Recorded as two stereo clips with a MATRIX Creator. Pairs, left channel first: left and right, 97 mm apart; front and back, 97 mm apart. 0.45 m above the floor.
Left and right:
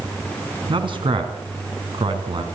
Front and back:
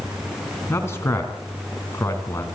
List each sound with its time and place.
0.7 s a man speaking: 65° right, 4 m